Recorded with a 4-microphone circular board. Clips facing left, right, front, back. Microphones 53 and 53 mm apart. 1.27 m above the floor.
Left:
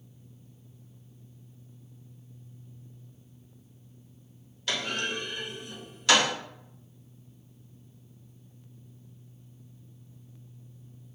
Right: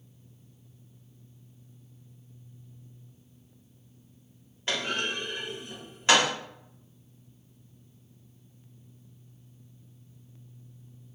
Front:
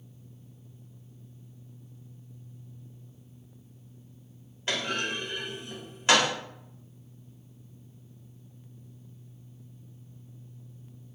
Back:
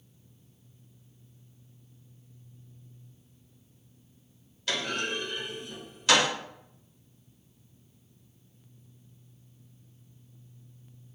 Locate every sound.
4.7 s a clunk: 45° right, 1.3 m